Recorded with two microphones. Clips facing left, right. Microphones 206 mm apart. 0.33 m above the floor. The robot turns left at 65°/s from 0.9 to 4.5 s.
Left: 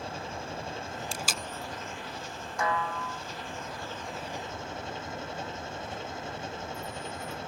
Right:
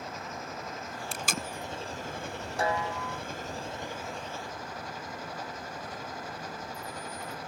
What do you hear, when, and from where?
0.0 s an engine running: 30° left; by 7.5 s 155° left
1.1 s tape being pulled: 65° right (ahead or behind); by 1.5 s 45° right (ahead or behind)
2.6 s a snare drum: 145° right; by 3.2 s 170° left